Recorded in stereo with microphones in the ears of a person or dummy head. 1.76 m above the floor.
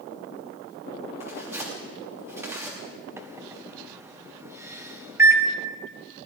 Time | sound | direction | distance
1.2 | tearing paper | 10° right (ahead or behind) | 3 m
3.2 | a microwave | 15° right (ahead or behind) | 1.1 m